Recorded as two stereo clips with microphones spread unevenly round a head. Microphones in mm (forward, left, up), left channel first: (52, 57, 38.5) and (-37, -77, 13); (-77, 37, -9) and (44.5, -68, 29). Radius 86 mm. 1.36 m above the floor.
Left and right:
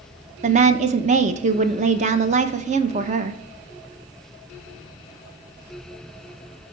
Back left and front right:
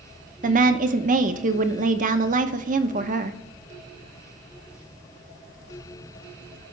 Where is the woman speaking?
75° right, 0.8 m.